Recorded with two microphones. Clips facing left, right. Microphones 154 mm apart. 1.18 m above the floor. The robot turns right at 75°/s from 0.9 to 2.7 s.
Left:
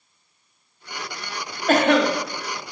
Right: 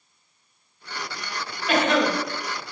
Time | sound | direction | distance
1.7 | a cough | 45° left (ahead or behind) | 0.7 m